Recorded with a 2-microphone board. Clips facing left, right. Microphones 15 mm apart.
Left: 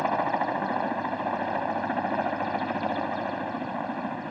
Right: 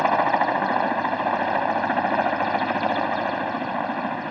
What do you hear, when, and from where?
0.0 s a helicopter: 30° right (ahead or behind)